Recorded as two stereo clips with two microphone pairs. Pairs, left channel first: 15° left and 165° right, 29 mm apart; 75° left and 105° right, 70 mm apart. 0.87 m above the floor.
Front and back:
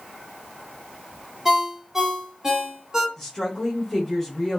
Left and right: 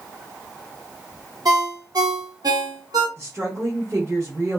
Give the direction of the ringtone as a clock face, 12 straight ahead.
3 o'clock.